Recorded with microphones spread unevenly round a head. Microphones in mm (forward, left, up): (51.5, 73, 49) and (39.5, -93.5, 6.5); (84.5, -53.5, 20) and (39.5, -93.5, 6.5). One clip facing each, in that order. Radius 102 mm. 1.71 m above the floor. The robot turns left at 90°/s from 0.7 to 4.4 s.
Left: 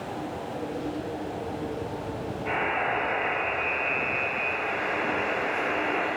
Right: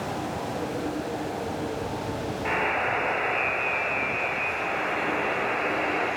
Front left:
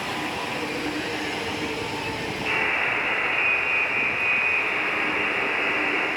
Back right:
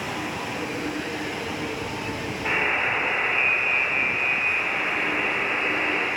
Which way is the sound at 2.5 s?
110° right.